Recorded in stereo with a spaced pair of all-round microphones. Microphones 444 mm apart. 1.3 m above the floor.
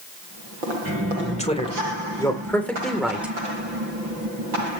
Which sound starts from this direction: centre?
A man speaking, at 1.4 s.